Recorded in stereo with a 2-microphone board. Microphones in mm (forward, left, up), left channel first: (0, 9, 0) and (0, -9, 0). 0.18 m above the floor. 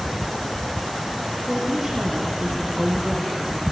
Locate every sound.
1.5 s a woman speaking: 20° right (ahead or behind), 9 m; by 3.6 s 25° right (ahead or behind), 7.5 m